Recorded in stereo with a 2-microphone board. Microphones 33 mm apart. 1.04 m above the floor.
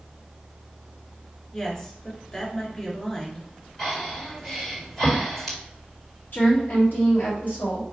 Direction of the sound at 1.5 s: 20° left (ahead or behind).